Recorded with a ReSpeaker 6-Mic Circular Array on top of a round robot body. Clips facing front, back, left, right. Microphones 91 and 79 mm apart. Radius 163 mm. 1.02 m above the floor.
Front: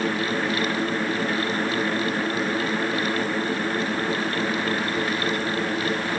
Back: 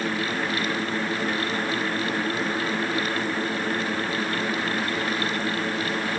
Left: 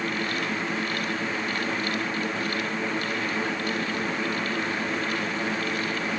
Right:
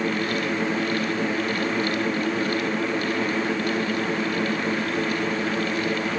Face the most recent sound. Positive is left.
No sound to turn to.